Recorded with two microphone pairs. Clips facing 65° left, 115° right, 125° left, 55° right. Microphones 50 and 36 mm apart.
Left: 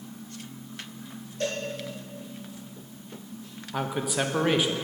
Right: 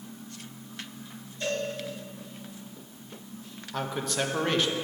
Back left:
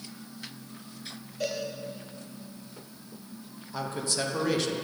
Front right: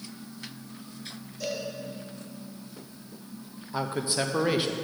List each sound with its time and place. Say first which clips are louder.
1.4 s a cowbell: even, back left 2 dB; 85° left, 2.5 m
3.7 s a man speaking: left 2 dB, front right 3 dB; 5° right, 0.6 m